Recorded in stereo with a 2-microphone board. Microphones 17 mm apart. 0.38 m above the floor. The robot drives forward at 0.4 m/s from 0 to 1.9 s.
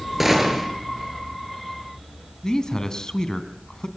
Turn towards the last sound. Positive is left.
turn(degrees=40)  # may be behind; listen again after turning